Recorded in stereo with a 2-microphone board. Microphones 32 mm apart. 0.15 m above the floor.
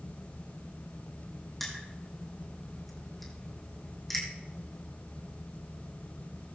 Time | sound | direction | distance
1.6 | crushing | 5° left (ahead or behind) | 4 m